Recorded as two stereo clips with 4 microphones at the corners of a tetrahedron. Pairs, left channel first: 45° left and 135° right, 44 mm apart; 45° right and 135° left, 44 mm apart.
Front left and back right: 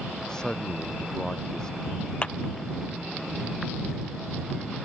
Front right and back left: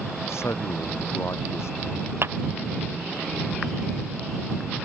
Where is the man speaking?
30° right.